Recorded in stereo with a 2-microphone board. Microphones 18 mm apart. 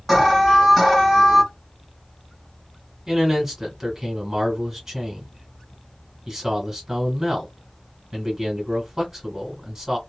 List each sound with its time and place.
0.1 s an alarm: 5° right (ahead or behind), 1.6 m
3.1 s a man speaking: 15° right (ahead or behind), 1.4 m